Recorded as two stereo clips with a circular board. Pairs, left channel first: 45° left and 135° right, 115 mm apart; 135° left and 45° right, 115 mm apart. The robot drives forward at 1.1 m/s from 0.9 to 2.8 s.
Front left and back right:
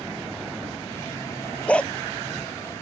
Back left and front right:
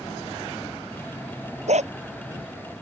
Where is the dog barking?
35° right.